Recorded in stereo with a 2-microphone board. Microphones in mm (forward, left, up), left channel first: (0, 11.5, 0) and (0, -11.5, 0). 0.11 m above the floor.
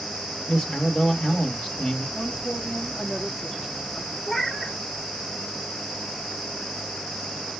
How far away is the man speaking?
About 2.5 m.